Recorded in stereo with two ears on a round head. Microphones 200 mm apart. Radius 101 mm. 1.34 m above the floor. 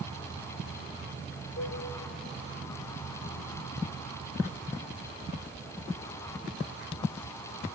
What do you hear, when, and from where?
1.6 s a cowbell: 50° left (ahead or behind), 1.4 m